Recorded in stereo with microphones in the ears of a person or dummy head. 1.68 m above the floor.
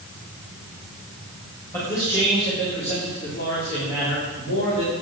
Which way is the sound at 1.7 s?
10° left (ahead or behind).